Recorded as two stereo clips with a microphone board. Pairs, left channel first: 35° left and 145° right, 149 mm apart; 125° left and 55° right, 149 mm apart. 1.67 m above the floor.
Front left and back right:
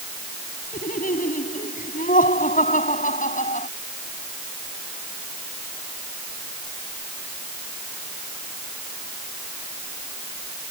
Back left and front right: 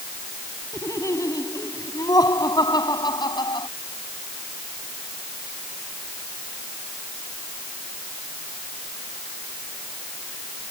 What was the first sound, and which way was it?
Laughter, 55° left.